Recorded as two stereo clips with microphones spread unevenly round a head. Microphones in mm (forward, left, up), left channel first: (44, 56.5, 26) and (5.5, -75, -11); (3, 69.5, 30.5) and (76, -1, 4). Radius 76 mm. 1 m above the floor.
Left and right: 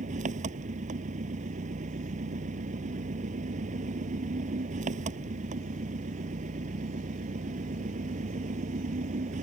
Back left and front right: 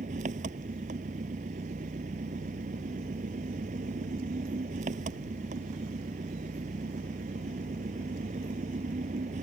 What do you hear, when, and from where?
0.0 s an engine running: 70° right